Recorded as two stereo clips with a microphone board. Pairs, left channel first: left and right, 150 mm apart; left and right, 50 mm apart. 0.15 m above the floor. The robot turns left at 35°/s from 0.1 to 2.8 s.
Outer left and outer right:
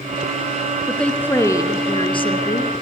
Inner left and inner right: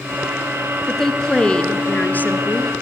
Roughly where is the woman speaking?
Behind.